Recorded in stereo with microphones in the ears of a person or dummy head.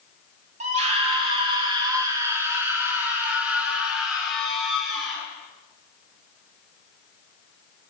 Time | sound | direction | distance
0.6 | a scream | 40° right (ahead or behind) | 2.5 m